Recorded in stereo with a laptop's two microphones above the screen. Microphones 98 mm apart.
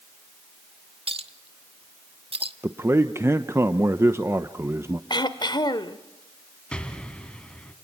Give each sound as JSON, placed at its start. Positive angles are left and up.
{"t": 1.1, "sound": "a clink", "side_deg": -75, "distance_m": 1.1}
{"t": 2.6, "sound": "a man speaking", "side_deg": -25, "distance_m": 0.9}
{"t": 5.1, "sound": "throat clearing", "side_deg": 50, "distance_m": 1.1}
{"t": 6.7, "sound": "an explosion", "side_deg": 10, "distance_m": 2.0}